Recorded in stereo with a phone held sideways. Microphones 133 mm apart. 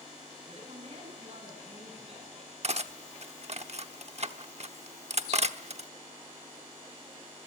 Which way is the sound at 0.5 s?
55° right (ahead or behind).